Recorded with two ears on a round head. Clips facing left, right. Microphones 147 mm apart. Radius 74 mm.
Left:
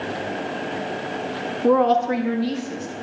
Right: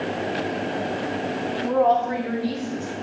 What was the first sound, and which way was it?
A woman speaking, 60° left (ahead or behind).